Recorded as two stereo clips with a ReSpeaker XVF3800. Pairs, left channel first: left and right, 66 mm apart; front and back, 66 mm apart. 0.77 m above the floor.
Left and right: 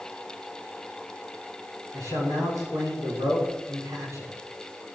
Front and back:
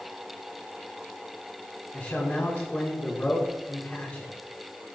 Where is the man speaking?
60° right, 7.5 m.